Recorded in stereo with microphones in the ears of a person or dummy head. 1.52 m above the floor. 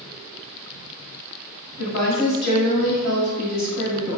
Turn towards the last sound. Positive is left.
turn(degrees=65)  # may be behind; listen again after turning